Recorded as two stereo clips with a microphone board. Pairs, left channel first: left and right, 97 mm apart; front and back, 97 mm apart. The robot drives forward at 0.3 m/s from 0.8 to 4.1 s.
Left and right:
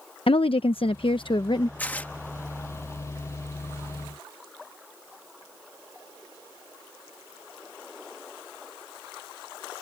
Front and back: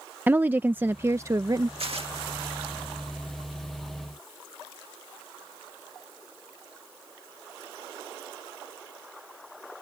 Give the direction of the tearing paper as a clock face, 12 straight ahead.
7 o'clock.